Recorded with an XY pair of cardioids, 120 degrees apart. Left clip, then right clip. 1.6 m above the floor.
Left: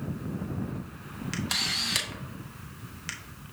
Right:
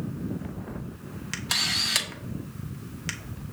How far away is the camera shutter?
About 0.6 m.